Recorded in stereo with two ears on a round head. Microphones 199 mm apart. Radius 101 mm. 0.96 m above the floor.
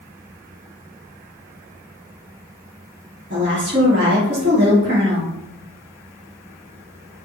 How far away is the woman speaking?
About 2.5 m.